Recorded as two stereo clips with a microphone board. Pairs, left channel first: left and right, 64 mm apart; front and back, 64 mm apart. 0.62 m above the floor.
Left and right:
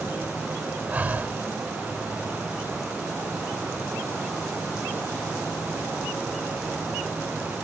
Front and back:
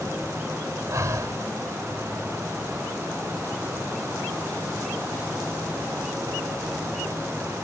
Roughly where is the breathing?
Behind right.